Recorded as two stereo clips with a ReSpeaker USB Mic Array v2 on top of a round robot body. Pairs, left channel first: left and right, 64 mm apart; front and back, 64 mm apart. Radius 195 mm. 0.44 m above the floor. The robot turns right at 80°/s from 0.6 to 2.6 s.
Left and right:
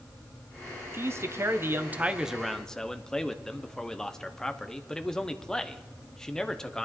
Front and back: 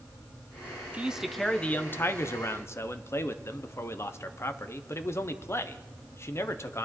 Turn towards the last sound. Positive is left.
turn(degrees=15)